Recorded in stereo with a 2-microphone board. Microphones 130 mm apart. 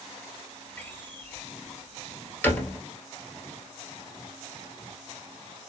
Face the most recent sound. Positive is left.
turn(degrees=15)  # may be behind; listen again after turning